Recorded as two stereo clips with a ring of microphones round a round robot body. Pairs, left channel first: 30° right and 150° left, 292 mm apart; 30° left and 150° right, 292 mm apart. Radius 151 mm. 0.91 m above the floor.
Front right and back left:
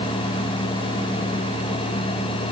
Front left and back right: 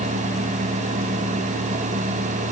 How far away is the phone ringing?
I don't hear a phone ringing.